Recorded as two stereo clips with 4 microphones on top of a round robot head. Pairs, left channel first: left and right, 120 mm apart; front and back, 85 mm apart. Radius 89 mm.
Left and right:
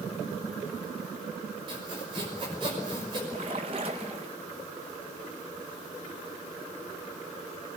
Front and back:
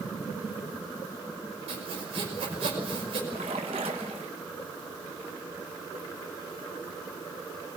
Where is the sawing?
150° right, 5.5 m.